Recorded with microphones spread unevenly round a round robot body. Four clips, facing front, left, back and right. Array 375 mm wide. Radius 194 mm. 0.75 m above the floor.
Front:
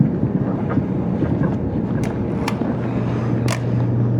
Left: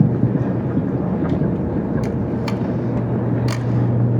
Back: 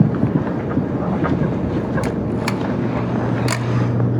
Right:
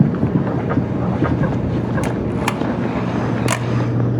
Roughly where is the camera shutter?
Right.